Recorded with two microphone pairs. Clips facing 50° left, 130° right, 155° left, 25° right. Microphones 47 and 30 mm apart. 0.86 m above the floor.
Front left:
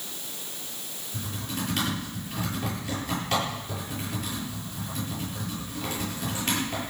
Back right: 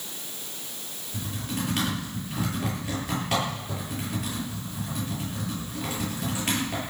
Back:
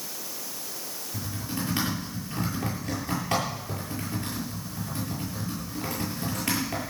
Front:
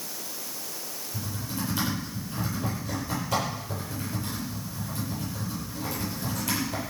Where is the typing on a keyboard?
155° left, 9.5 m.